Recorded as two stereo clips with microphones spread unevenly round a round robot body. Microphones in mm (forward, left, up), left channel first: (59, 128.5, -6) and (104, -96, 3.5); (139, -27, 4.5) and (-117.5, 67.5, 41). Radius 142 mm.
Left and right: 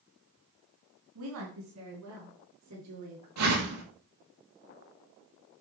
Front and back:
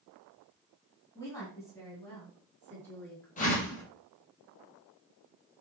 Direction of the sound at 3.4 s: 85° right.